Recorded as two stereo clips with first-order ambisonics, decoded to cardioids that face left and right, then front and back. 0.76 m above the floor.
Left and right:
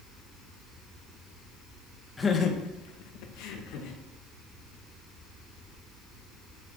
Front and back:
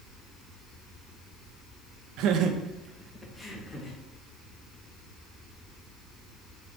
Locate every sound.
2.2 s laughter: 170° left, 0.9 m; by 4.0 s 70° left, 2 m